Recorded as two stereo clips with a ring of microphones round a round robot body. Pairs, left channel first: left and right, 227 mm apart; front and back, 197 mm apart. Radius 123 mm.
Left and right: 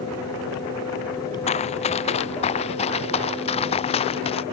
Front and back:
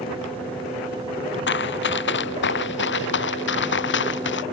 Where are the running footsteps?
25° left.